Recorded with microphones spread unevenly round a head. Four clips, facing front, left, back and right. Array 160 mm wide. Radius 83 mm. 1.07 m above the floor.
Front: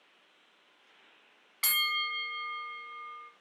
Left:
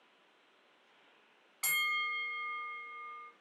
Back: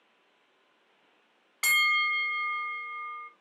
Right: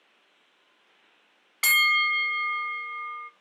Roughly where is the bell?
Right.